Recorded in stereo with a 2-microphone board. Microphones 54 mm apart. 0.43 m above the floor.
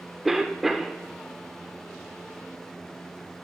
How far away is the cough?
About 0.8 m.